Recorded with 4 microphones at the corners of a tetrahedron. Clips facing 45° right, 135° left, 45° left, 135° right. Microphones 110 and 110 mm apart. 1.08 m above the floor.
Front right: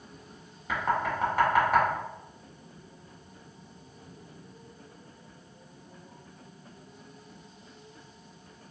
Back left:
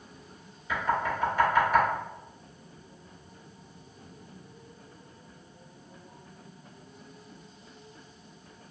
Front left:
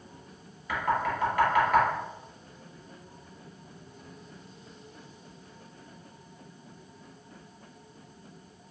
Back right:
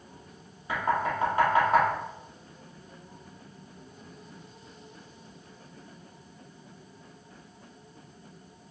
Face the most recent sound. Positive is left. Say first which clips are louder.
# even, back right 1 dB
turn(degrees=-70)